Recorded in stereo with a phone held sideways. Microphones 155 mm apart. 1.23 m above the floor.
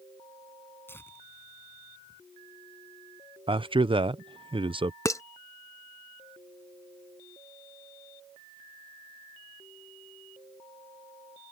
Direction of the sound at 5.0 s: 20° left (ahead or behind).